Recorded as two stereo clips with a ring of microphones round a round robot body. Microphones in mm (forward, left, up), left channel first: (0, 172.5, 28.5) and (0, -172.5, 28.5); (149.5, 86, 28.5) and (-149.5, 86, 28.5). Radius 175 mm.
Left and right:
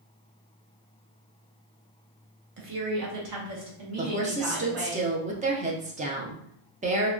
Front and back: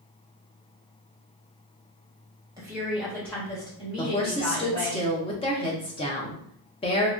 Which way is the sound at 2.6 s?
110° right.